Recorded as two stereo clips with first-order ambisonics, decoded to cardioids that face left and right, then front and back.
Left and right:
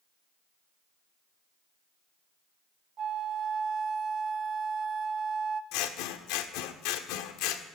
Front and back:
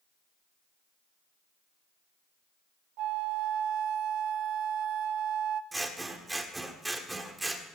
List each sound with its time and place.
3.0 s a flute: 150° right, 0.6 m
5.7 s scissors: 100° left, 1.2 m